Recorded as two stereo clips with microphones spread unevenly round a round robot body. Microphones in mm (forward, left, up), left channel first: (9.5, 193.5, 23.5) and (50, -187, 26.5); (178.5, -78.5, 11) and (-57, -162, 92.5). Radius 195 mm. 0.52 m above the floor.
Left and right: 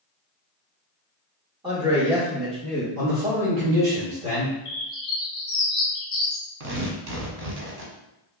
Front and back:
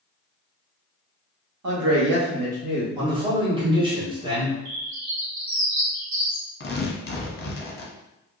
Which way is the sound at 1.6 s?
160° right.